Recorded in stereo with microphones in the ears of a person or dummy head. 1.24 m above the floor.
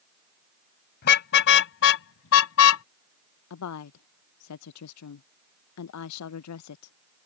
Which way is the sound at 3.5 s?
85° left.